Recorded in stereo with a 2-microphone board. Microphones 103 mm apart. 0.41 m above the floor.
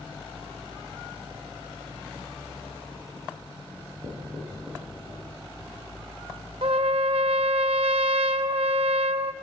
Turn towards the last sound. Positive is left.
turn(degrees=-65)  # may be behind; listen again after turning